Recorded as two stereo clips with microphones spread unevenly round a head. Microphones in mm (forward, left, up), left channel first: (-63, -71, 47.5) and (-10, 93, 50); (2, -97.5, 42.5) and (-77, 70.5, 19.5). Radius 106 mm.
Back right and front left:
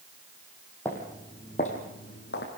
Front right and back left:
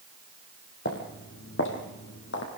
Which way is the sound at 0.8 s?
25° right.